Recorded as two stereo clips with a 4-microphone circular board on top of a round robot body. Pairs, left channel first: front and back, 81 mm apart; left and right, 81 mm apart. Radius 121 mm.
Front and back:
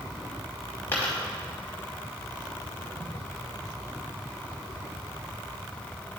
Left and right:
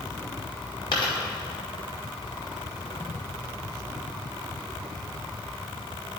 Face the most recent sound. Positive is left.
turn(degrees=65)